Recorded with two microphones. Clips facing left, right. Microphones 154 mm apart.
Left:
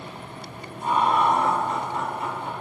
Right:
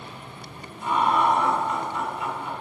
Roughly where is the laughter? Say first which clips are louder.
Left 1 dB; left.